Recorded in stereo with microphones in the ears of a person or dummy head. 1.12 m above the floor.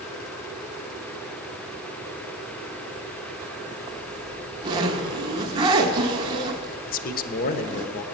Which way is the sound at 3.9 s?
25° right (ahead or behind).